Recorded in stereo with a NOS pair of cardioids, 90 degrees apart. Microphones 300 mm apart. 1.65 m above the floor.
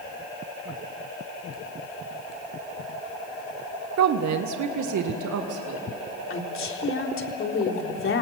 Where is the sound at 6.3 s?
45° left, 4 m.